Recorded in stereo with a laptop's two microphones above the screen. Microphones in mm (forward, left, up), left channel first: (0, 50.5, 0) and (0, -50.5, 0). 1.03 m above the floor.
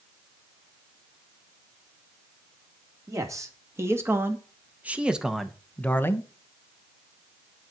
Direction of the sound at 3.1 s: 35° right (ahead or behind).